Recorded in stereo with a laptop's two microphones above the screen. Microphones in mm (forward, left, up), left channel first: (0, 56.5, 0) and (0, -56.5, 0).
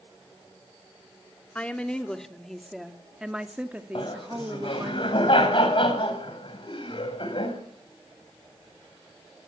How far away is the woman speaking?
About 3 m.